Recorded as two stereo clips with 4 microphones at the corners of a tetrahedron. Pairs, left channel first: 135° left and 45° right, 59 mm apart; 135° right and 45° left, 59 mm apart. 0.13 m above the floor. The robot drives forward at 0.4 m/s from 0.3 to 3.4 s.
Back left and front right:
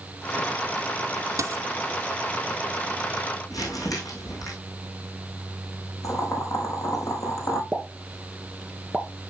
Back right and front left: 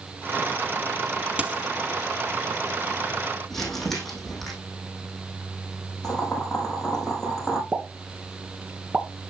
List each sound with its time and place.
1.4 s a dropped coin: 20° right, 1.0 m; by 1.6 s 25° right, 1.0 m
3.5 s crumpling: 140° left, 4.5 m
6.0 s boiling: 145° left, 4 m
7.7 s a pop: 80° left, 1.4 m